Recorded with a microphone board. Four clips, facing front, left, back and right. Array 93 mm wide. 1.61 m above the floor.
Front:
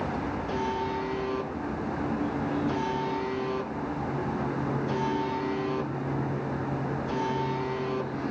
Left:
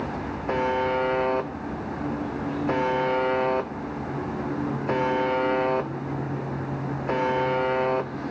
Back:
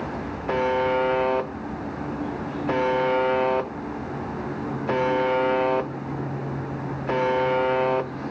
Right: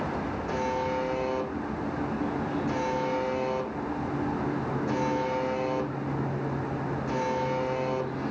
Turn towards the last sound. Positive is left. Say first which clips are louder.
# left 6 dB, back 11 dB
turn(degrees=145)